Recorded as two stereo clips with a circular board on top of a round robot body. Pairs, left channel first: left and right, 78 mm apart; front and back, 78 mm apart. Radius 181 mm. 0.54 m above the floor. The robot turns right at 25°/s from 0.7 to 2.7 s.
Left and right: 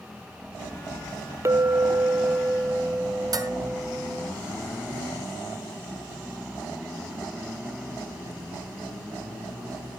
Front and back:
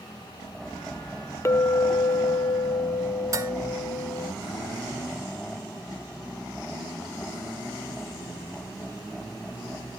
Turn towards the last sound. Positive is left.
turn(degrees=-130)